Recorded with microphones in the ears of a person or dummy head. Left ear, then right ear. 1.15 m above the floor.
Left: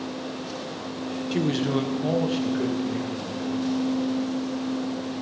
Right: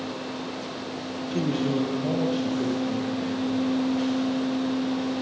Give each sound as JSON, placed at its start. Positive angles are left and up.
{"t": 1.3, "sound": "a man speaking", "side_deg": 25, "distance_m": 0.8}